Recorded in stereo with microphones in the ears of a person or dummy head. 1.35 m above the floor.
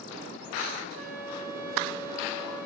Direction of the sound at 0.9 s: 65° right (ahead or behind).